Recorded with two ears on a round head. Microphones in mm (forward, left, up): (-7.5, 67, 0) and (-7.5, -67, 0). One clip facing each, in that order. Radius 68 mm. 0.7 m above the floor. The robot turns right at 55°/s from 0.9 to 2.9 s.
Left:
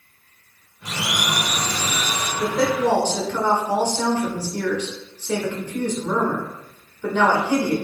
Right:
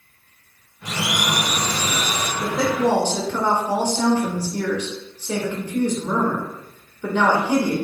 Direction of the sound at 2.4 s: 5° left (ahead or behind).